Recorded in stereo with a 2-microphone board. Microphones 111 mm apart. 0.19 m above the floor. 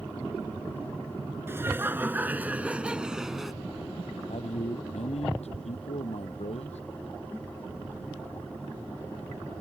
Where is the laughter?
20° right (ahead or behind); by 3.5 s centre (ahead or behind).